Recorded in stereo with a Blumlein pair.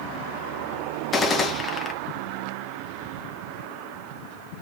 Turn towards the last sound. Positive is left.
turn(degrees=20)